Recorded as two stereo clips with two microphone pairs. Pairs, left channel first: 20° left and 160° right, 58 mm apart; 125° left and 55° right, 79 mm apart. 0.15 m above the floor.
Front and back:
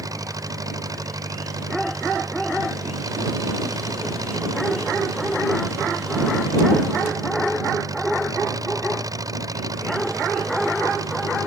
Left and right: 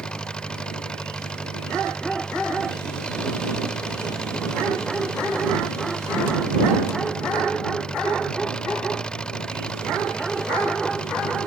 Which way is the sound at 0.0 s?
155° right.